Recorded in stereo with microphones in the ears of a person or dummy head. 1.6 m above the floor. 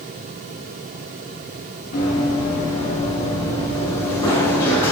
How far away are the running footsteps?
About 2.5 m.